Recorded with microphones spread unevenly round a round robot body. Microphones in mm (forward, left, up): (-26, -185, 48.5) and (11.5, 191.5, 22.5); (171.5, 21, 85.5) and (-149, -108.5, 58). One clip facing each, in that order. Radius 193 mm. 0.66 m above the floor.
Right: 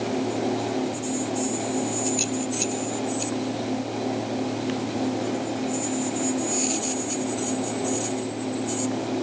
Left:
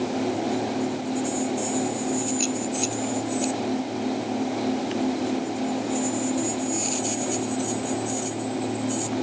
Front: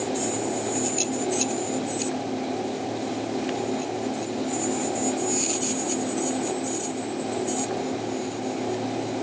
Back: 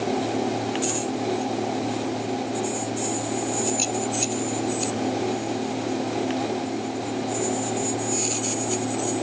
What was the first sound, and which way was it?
Only background noise.